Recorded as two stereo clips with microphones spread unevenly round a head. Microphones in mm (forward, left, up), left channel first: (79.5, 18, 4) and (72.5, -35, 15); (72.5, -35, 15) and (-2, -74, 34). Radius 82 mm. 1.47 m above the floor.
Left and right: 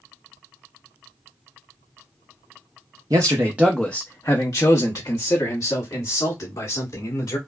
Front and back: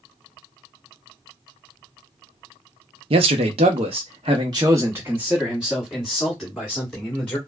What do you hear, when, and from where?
3.1 s a man speaking: 155° right, 0.7 m; by 7.4 s 110° left, 2 m